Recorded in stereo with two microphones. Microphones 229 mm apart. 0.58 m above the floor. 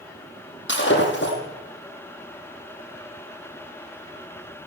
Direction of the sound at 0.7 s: 55° left (ahead or behind).